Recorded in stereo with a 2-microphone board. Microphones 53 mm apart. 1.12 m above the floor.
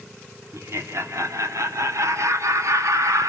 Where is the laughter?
65° right (ahead or behind), 3 m; by 3.3 s 80° right, 2 m.